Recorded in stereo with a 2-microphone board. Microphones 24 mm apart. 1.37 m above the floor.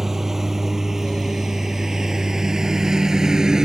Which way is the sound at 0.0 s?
20° right (ahead or behind).